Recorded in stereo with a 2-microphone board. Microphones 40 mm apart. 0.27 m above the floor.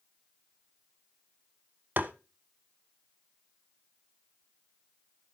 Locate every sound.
2.0 s tapping: 50° right (ahead or behind), 0.5 m